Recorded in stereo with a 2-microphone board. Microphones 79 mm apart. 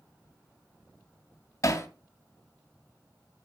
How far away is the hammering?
About 2 m.